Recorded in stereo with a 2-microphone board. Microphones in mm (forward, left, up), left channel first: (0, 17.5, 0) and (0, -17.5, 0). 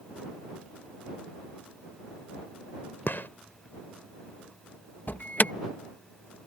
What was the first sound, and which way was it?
A gunshot, 65° left (ahead or behind).